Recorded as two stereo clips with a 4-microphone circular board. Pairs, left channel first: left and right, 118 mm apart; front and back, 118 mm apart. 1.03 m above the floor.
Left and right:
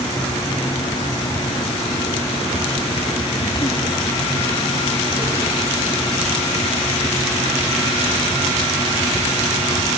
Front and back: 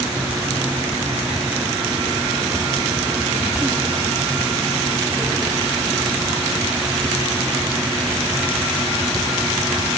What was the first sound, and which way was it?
Only background noise.